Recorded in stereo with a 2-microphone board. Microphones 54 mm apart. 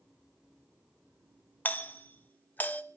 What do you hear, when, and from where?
1.6 s a doorbell: 30° left (ahead or behind), 1.0 m